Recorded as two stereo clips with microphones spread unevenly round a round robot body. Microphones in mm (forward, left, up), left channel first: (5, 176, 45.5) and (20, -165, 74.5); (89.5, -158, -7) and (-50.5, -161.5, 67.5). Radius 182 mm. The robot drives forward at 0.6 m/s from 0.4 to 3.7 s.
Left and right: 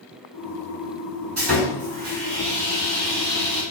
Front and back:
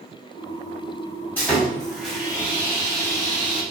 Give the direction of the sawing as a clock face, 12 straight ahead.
2 o'clock.